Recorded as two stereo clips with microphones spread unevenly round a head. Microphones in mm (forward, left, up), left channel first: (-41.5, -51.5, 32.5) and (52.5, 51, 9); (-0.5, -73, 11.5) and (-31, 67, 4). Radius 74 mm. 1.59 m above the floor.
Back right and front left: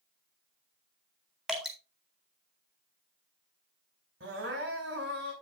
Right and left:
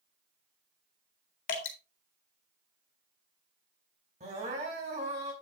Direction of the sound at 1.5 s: 45° right.